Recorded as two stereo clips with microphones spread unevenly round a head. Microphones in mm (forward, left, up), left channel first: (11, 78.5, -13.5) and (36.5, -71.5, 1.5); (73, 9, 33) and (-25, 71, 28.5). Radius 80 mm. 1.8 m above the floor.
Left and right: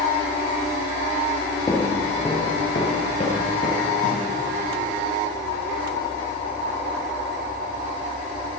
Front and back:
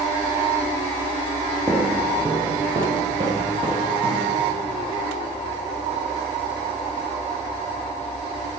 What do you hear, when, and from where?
1.7 s footsteps: 160° left, 1.8 m; by 4.3 s 125° left, 2.5 m